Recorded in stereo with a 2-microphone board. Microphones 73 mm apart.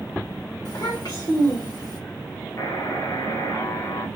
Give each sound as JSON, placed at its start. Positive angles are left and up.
{"t": 0.7, "sound": "a child speaking", "side_deg": 60, "distance_m": 1.7}
{"t": 2.6, "sound": "a buzzer", "side_deg": 55, "distance_m": 1.9}